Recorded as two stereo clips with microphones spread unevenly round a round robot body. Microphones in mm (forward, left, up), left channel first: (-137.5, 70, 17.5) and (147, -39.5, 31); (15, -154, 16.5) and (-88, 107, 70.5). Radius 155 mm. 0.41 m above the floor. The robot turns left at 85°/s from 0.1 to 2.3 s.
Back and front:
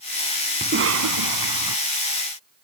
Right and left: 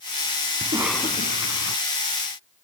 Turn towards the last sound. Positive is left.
turn(degrees=-100)